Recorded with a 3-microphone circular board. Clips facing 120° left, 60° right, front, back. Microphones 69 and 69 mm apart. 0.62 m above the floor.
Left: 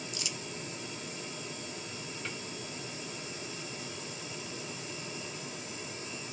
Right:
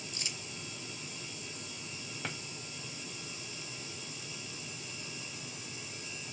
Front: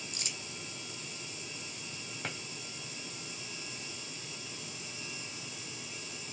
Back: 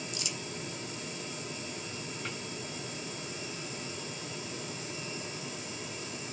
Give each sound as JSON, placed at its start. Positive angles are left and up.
{"t": 0.1, "sound": "crumpling", "azimuth_deg": -15, "distance_m": 0.7}
{"t": 2.2, "sound": "a drawer", "azimuth_deg": -30, "distance_m": 2.0}